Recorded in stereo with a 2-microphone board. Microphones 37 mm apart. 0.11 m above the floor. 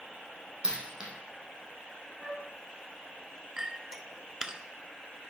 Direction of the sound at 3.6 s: 15° right (ahead or behind).